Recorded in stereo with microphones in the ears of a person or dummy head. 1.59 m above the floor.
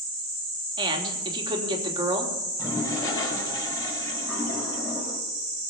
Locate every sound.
0.8 s a man speaking: 25° right (ahead or behind), 3 m
2.6 s a toilet flushing: 20° left (ahead or behind), 5 m